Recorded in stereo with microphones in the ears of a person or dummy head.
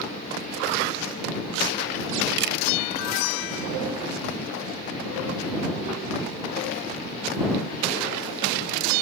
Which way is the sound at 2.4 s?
60° right (ahead or behind).